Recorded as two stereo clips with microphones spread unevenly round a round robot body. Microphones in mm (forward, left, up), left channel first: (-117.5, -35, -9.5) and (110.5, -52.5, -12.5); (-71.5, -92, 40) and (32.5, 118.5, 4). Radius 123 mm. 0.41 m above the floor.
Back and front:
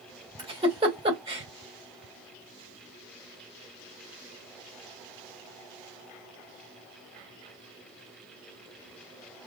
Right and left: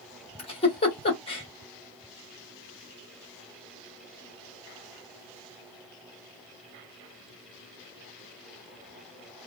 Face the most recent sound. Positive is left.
turn(degrees=-55)